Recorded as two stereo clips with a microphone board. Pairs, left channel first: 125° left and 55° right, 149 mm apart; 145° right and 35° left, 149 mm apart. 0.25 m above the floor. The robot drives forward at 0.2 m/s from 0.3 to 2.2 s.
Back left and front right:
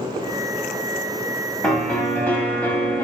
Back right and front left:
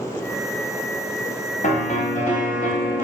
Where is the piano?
155° right, 0.6 m; by 3.0 s 160° right, 0.7 m.